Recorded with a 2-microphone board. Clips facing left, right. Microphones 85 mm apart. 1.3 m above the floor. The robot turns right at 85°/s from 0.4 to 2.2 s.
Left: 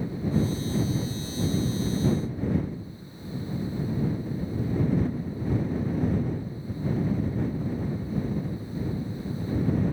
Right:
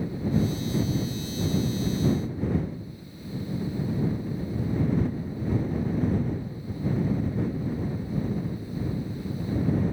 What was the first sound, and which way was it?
Only background noise.